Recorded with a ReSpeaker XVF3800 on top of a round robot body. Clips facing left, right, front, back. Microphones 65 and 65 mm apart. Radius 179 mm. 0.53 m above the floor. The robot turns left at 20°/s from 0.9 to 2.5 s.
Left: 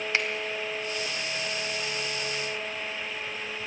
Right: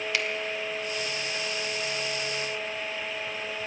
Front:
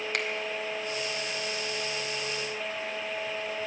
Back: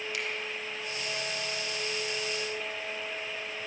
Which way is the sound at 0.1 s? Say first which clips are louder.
Left 2 dB, front 5 dB; 30° left.